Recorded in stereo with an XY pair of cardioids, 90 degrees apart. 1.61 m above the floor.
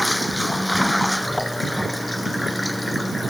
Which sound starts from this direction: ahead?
Running water, at 0.0 s.